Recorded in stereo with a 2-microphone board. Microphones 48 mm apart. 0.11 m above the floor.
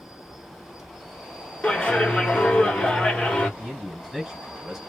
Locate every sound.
0.0 s an insect: centre (ahead or behind), 1.1 m
1.6 s a clap: 20° left (ahead or behind), 1.2 m
3.6 s a man speaking: 5° right (ahead or behind), 1.9 m